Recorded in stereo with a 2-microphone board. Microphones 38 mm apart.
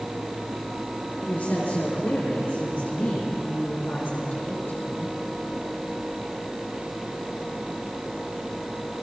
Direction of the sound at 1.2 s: 60° left (ahead or behind).